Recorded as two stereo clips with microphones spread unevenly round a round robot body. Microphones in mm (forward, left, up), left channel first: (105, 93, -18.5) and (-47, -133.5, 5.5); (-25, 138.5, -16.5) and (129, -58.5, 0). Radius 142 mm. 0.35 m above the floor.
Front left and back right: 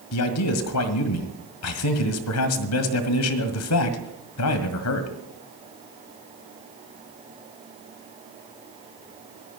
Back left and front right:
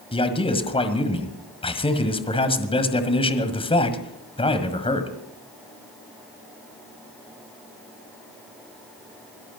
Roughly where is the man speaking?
Ahead left.